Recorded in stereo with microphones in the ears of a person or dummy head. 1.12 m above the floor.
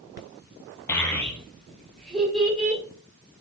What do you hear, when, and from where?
0.9 s a child speaking: 15° left (ahead or behind), 0.5 m; by 2.8 s centre (ahead or behind), 1.7 m